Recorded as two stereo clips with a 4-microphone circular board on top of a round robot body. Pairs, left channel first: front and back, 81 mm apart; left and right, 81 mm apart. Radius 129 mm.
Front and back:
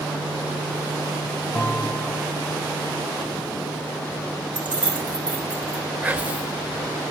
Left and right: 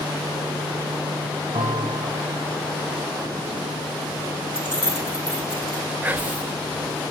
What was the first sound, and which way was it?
A bell, 80° right.